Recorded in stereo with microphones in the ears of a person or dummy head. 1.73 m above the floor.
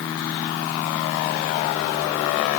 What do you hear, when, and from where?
Only background noise.